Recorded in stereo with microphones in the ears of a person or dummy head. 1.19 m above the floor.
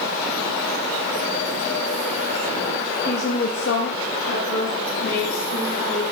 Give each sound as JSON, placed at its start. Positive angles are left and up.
{"t": 3.1, "sound": "a woman speaking", "side_deg": 35, "distance_m": 1.2}